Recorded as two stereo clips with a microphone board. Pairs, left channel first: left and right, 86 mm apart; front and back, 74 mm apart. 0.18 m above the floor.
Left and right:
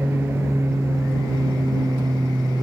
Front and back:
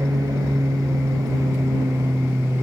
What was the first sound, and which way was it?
An aircraft, 155° right.